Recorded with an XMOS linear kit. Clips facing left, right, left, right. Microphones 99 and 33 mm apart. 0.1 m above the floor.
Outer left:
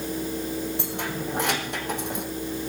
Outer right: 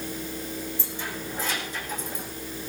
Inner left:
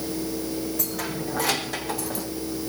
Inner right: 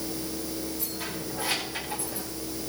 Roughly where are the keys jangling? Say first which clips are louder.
Outer left 5 dB, inner left 5 dB; left.